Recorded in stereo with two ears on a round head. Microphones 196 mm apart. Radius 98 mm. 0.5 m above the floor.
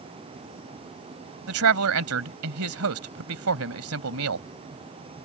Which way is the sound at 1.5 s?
75° right (ahead or behind).